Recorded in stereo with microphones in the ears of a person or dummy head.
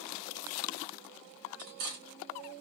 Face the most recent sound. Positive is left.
turn(degrees=-50)  # may be behind; listen again after turning